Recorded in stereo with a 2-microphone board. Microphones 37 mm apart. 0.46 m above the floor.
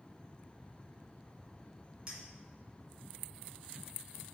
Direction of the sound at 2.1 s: 25° right (ahead or behind).